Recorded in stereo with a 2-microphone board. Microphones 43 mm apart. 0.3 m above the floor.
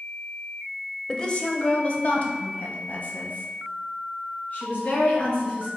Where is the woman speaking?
20° left (ahead or behind), 0.9 m; by 5.7 s 40° left (ahead or behind), 3 m.